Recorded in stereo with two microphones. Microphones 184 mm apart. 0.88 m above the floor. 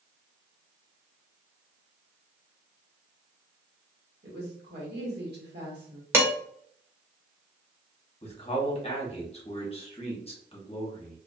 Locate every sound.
4.2 s a woman speaking: 65° right (ahead or behind), 1.3 m
6.1 s dishes clattering: 15° right (ahead or behind), 0.8 m
8.2 s a man speaking: 35° left (ahead or behind), 1.0 m